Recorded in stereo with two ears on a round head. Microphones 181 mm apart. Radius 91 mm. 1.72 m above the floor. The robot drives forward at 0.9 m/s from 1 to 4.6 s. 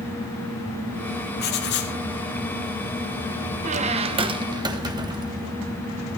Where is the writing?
50° left (ahead or behind), 2.5 m; by 1.9 s 60° left (ahead or behind), 2 m.